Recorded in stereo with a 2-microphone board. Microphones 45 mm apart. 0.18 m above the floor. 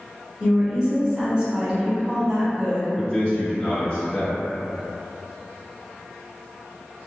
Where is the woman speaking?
20° right (ahead or behind), 1.1 m.